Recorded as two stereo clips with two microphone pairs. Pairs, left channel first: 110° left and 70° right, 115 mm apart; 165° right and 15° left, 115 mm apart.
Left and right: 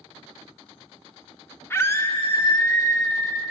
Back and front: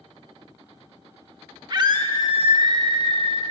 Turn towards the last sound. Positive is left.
turn(degrees=50)